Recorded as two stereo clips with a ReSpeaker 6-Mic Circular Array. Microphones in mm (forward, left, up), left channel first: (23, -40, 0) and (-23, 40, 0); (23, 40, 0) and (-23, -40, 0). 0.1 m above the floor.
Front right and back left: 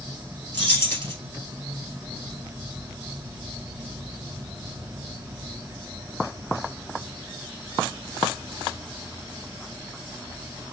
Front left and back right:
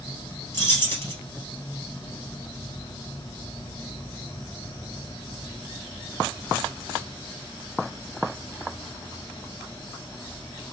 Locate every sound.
0.5 s keys jangling: 5° left, 1.6 m